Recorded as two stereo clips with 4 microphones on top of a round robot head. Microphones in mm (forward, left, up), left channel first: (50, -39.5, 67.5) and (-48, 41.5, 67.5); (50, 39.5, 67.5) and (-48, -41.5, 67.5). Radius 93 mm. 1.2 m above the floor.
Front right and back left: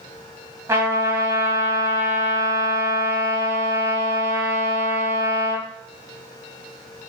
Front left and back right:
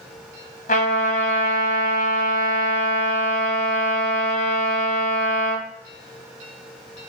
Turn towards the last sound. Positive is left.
turn(degrees=70)